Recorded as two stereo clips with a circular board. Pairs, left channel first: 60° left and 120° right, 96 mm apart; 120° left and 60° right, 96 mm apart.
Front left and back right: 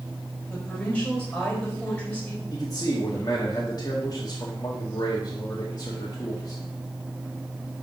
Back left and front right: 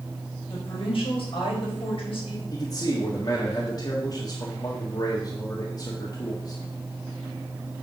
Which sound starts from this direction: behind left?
A woman speaking, at 0.5 s.